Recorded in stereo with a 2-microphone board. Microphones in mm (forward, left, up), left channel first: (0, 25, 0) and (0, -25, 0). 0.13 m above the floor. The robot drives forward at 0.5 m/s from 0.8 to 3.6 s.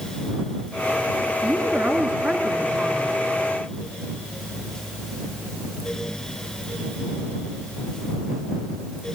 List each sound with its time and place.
1.4 s a woman speaking: 30° right (ahead or behind), 1.9 m; by 3.1 s 35° right (ahead or behind), 1.6 m